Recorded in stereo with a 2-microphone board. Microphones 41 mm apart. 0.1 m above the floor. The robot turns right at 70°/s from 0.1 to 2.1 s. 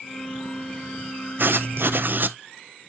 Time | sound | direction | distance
1.4 | writing | 110° right | 0.6 m